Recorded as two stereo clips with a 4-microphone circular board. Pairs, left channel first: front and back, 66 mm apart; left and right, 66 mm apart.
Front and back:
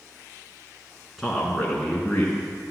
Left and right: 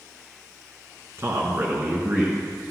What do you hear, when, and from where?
1.2 s a man speaking: 95° right, 2.0 m; by 2.4 s 65° right, 1.8 m